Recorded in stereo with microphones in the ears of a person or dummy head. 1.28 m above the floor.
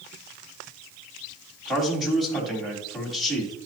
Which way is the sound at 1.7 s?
5° left (ahead or behind).